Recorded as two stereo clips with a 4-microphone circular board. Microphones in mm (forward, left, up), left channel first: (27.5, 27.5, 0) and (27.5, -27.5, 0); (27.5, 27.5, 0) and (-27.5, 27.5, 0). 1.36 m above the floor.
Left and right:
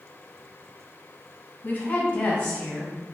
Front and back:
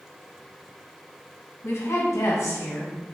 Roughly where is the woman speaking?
Ahead left.